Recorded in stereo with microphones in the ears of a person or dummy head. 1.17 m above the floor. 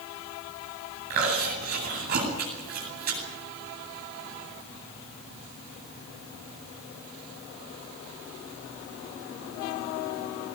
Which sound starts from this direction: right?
Chewing, at 1.1 s.